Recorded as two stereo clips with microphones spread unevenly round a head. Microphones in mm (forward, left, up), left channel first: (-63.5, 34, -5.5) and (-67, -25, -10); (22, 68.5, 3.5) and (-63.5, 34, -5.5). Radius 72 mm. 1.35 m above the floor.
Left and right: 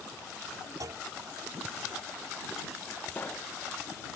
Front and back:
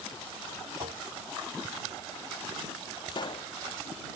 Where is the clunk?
115° right.